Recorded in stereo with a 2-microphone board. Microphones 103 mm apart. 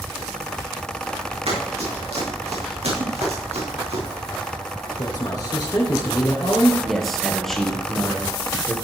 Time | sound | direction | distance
1.5 | running footsteps | 85° right | 6 m
3.0 | a whoosh | 45° right (ahead or behind) | 2.5 m
5.0 | a man speaking | 40° left (ahead or behind) | 2 m
6.8 | a man speaking | 5° left (ahead or behind) | 2.5 m